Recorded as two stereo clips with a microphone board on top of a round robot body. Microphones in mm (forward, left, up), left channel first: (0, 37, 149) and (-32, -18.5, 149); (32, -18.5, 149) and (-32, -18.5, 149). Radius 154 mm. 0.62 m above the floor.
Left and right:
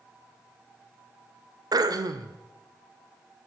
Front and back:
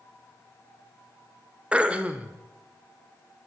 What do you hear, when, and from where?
1.7 s throat clearing: 110° right, 2.5 m